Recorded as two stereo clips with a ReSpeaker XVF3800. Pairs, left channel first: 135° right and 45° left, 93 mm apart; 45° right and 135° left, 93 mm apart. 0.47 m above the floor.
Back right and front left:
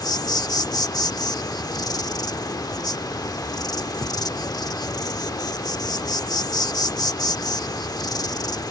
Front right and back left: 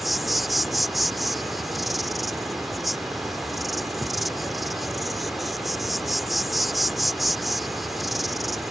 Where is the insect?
135° right.